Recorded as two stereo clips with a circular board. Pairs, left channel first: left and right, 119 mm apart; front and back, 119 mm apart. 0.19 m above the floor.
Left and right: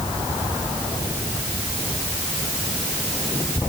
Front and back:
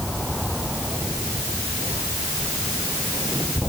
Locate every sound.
Only background noise.